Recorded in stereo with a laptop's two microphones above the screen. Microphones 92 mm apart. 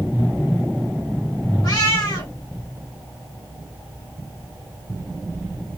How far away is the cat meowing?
About 1.6 m.